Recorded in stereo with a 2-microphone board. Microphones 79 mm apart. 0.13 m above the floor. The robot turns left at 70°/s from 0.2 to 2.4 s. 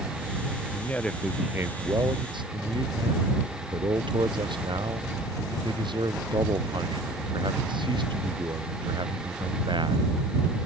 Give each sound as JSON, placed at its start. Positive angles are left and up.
{"t": 0.7, "sound": "a man speaking", "azimuth_deg": 35}